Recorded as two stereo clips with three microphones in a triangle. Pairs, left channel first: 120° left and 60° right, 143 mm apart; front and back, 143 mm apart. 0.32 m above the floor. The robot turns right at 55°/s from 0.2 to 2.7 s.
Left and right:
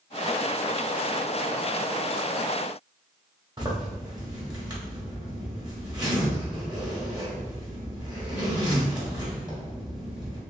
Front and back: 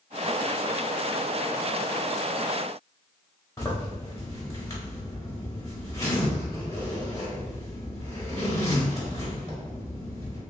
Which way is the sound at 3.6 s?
50° right.